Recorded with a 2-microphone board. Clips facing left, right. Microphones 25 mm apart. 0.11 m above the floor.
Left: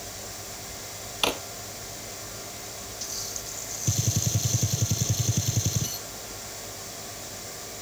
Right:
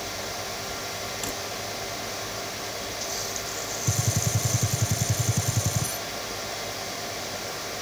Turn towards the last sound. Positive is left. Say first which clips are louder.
# left 1 dB
turn(degrees=25)  # may be behind; listen again after turning